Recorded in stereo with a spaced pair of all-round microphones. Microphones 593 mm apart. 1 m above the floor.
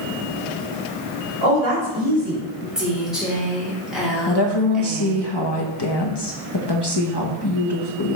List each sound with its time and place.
1.4 s a woman speaking: 50° right (ahead or behind), 3 m; by 2.6 s 65° right (ahead or behind), 3 m
2.8 s a woman speaking: centre (ahead or behind), 2.5 m
4.3 s a woman speaking: 40° left (ahead or behind), 1.2 m